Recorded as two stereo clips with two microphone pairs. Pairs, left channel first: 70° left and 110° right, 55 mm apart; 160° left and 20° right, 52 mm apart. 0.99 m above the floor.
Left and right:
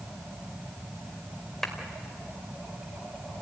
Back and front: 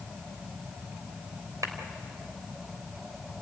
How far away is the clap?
About 3 m.